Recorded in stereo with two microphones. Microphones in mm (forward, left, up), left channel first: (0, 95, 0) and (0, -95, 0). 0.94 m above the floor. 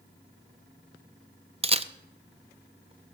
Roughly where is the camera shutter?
Right.